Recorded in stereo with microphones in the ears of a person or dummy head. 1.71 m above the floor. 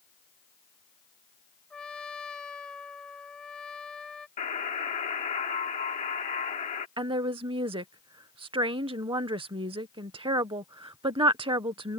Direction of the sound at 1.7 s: 5° left (ahead or behind).